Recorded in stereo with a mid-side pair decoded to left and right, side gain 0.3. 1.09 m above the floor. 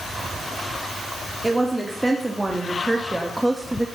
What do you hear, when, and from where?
1.4 s a woman speaking: 20° right, 3 m; by 3.9 s 15° right, 1.3 m